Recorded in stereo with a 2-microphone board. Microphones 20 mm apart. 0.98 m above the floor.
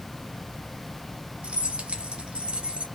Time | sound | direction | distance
1.4 | keys jangling | 75° right (ahead or behind) | 0.9 m